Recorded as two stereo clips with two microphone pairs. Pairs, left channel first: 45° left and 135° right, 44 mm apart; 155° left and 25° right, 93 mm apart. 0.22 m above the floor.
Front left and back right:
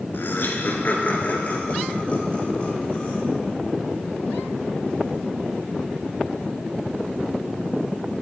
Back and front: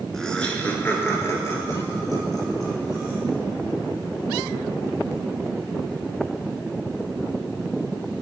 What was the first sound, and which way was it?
Laughter, 70° left.